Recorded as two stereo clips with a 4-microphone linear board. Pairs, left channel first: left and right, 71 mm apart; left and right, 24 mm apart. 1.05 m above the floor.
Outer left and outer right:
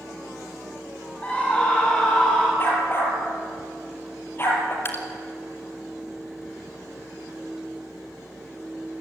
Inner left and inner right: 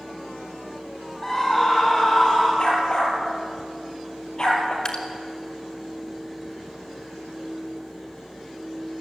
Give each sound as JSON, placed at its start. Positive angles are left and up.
{"t": 1.2, "sound": "a scream", "side_deg": 20, "distance_m": 5.0}
{"t": 2.6, "sound": "a dog barking", "side_deg": 35, "distance_m": 6.5}
{"t": 4.8, "sound": "dripping", "side_deg": 35, "distance_m": 3.5}